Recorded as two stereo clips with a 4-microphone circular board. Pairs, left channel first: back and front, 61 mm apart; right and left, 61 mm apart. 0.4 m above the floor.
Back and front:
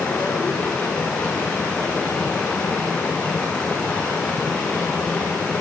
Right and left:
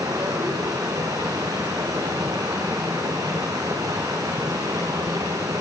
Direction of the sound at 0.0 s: 110° left.